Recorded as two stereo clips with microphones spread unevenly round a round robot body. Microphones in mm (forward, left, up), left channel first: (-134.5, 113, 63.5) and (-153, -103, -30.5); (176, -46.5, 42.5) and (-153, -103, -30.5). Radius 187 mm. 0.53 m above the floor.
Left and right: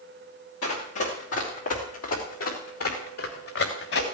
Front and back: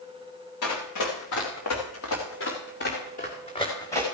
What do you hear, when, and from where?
0.6 s running footsteps: 50° left, 5 m; by 4.0 s 95° left, 3.5 m